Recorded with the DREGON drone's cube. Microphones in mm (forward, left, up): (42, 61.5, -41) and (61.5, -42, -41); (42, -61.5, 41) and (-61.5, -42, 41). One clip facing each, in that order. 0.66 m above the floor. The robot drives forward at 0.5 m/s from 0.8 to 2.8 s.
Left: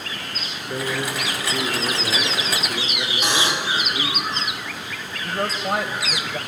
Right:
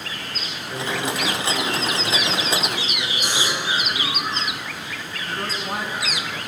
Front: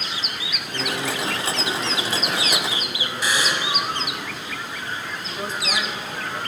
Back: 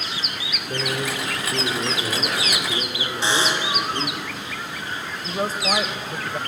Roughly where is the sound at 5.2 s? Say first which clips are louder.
Left 5 dB, back 7 dB; behind left.